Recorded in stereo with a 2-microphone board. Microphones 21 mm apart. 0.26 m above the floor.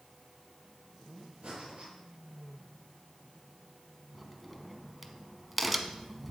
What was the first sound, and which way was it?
Breathing, 70° right (ahead or behind).